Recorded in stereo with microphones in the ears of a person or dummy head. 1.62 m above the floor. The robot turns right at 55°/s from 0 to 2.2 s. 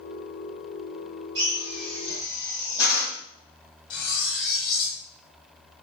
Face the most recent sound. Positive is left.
turn(degrees=30)  # may be behind; listen again after turning